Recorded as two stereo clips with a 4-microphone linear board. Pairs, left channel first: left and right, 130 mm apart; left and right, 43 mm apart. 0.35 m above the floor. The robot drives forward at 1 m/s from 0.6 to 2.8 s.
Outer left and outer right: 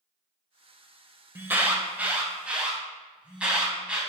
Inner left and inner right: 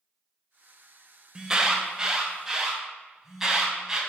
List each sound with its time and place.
1.4 s an alarm: 15° right (ahead or behind), 1.2 m; by 4.0 s 10° right (ahead or behind), 2.5 m